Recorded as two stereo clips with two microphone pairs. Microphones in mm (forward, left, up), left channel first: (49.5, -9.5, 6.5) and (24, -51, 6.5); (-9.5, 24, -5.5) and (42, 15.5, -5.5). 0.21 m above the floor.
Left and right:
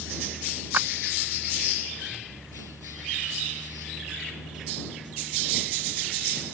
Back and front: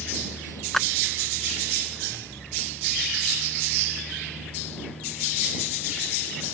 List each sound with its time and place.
0.7 s a clap: 110° right